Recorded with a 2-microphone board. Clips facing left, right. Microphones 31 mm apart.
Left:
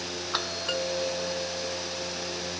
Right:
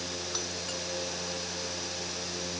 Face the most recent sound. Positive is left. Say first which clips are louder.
# left 6 dB
turn(degrees=50)  # may be behind; listen again after turning